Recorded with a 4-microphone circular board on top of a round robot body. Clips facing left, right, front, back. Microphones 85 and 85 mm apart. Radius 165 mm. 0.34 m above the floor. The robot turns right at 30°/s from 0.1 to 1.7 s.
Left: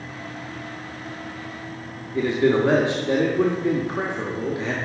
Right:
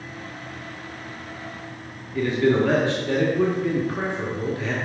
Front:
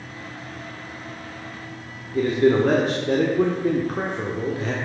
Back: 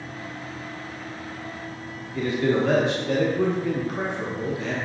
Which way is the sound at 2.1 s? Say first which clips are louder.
Left 1 dB, front 5 dB; 30° left.